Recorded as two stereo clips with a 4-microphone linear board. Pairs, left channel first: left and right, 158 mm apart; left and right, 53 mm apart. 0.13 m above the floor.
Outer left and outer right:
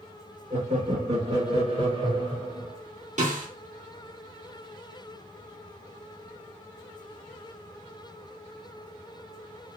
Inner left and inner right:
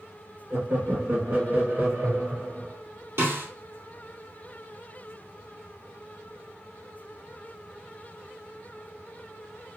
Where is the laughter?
55° right (ahead or behind), 2 m; by 2.8 s 30° right (ahead or behind), 2.0 m.